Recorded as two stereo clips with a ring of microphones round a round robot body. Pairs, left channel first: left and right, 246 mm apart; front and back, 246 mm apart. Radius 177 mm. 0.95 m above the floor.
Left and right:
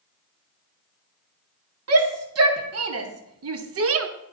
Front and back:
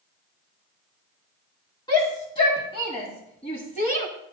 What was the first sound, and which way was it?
A shout, 75° right.